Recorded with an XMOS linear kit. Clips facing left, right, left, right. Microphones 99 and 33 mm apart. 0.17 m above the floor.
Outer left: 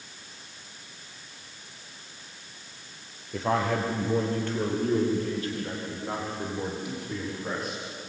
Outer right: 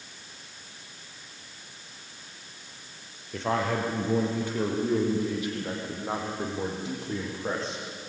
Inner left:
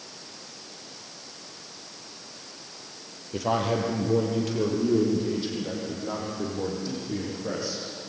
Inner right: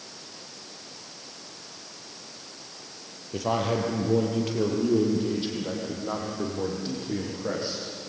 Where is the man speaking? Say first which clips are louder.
Outer left 1 dB, inner left 1 dB; centre (ahead or behind), 4.5 m; by 7.8 s 30° right (ahead or behind), 9 m.